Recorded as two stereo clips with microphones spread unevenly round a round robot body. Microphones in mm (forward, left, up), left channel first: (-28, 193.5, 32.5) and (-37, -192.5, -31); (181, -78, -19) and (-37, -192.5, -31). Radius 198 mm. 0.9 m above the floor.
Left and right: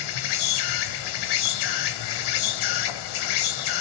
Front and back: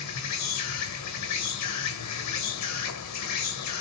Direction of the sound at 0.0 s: 60° left.